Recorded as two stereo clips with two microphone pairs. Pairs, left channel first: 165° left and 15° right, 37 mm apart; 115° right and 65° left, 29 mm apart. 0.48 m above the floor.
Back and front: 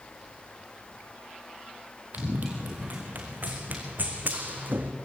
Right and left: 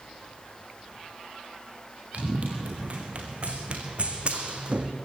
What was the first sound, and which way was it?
Running footsteps, 25° left.